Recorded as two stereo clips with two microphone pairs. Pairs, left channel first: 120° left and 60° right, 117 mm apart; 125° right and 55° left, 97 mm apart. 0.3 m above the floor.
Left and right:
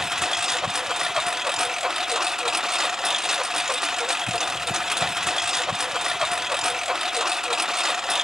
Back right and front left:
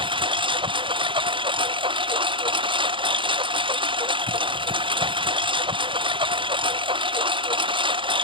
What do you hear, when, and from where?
0.0 s a lawn mower: 25° left